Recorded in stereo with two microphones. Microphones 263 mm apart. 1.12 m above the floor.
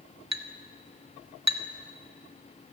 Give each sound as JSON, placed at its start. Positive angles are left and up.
{"t": 0.3, "sound": "a clink", "side_deg": -80, "distance_m": 1.8}